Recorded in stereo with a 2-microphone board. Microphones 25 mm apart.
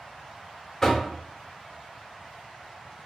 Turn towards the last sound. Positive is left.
turn(degrees=10)  # may be behind; listen again after turning